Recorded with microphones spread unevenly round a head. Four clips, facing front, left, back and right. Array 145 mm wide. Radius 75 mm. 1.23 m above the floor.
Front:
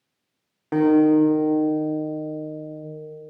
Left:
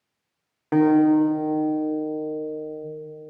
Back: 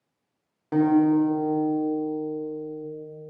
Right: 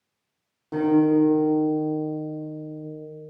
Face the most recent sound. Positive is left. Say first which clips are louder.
# left 2 dB, front 3 dB
turn(degrees=40)